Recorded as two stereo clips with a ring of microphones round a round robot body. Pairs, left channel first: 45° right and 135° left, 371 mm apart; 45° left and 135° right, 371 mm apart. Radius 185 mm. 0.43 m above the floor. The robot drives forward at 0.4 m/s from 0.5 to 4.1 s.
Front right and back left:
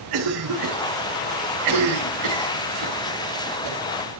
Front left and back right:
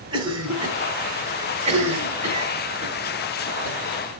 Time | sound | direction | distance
0.1 | a cough | 150° left | 3.5 m